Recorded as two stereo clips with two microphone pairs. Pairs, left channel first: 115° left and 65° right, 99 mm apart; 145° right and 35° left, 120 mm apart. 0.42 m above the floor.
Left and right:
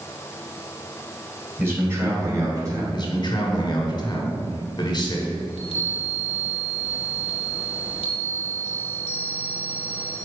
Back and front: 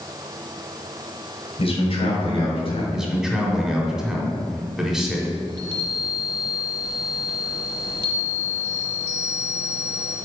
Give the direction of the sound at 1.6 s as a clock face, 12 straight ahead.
4 o'clock.